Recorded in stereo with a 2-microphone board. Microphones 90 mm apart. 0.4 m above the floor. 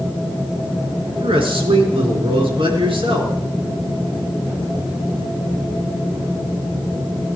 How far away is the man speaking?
About 4.5 m.